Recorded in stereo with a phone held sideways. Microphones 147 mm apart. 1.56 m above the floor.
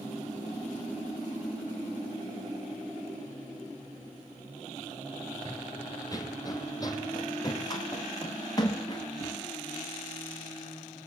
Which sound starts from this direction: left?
Running footsteps, at 5.5 s.